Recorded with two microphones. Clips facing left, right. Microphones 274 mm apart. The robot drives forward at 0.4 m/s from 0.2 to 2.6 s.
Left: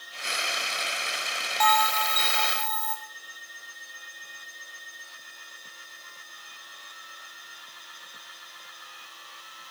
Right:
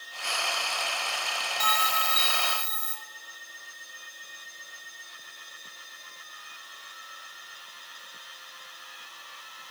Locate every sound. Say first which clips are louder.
1.6 s a bell: left 9 dB; 35° right (ahead or behind), 3.5 m; by 3.0 s 30° right (ahead or behind), 4 m